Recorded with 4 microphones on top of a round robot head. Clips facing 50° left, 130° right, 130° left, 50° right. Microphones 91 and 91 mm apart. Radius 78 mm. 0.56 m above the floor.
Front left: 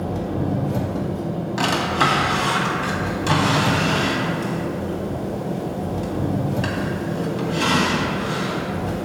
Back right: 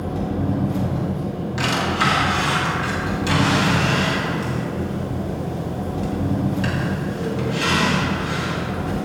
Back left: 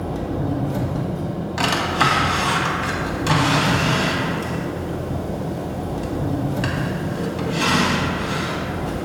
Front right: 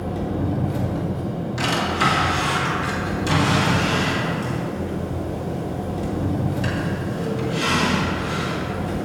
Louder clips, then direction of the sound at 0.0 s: Even, even; 75° left.